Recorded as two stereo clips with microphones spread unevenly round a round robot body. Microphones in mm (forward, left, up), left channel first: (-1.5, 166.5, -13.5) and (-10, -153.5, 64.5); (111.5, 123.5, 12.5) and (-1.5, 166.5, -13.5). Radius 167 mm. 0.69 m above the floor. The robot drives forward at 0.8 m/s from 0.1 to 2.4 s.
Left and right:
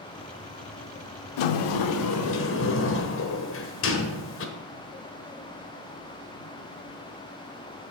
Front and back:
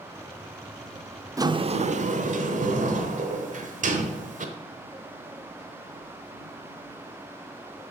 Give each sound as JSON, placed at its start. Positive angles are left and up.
{"t": 1.4, "sound": "a sliding door", "azimuth_deg": 90, "distance_m": 0.6}